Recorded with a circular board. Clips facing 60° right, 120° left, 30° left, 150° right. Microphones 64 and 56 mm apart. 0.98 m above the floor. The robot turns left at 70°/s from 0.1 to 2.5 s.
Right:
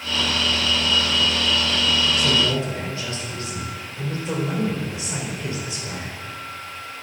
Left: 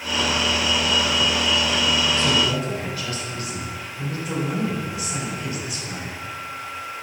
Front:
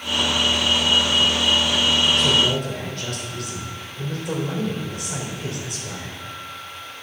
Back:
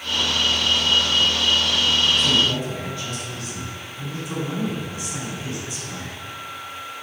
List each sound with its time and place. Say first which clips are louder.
2.2 s a man speaking: even, front 1 dB; 25° left, 3.5 m; by 6.2 s straight ahead, 3.5 m